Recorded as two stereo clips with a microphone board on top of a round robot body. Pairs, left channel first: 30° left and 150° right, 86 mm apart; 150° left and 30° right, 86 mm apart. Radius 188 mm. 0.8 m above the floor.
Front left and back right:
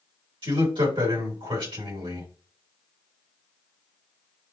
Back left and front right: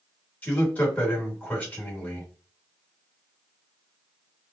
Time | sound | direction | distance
0.4 | a man speaking | 140° right | 3 m